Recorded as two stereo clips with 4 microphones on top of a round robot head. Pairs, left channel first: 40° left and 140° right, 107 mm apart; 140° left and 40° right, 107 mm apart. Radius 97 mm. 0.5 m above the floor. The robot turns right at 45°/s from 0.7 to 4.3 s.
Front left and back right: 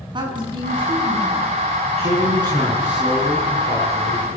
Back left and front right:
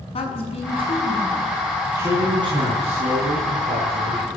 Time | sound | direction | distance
0.1 | a woman speaking | 175° left | 7 m
2.0 | a man speaking | 110° right | 7 m